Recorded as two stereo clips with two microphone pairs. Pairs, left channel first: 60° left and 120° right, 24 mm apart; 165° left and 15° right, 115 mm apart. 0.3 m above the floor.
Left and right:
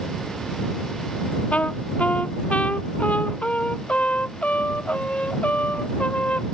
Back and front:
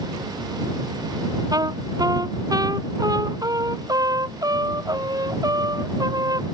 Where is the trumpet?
40° left.